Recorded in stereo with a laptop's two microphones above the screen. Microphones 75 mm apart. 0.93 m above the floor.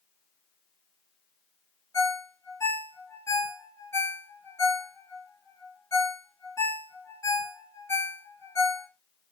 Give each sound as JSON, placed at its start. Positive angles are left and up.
{"t": 1.9, "sound": "a ringtone", "side_deg": 40, "distance_m": 1.3}